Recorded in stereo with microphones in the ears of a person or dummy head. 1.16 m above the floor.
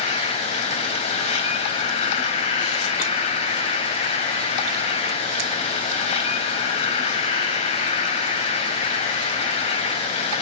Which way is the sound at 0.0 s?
30° left (ahead or behind).